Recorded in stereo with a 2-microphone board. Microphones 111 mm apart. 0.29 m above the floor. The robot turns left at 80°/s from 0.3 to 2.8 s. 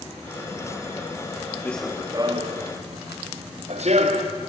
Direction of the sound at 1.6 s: 15° left (ahead or behind).